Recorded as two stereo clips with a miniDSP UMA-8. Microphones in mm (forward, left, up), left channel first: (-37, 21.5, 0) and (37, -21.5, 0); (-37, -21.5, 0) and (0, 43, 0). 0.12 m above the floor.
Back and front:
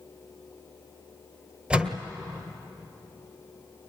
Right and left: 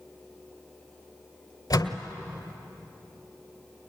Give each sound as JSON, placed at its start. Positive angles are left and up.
{"t": 1.7, "sound": "a door slam", "azimuth_deg": -105, "distance_m": 1.6}